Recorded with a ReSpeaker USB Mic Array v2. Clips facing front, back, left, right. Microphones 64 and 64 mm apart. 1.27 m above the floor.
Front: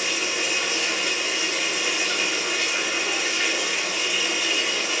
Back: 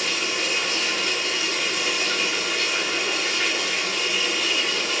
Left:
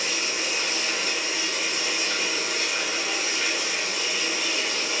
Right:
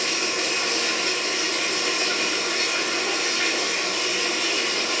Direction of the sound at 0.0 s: 80° right.